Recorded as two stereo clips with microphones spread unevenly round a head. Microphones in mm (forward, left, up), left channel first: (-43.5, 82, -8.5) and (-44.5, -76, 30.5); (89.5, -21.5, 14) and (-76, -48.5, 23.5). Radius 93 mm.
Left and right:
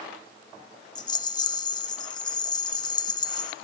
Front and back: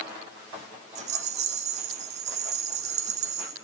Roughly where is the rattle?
Behind left.